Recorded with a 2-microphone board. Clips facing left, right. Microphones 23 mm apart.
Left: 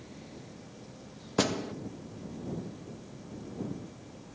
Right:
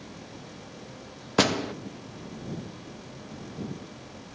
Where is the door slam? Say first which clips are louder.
Right 6 dB; 35° right (ahead or behind).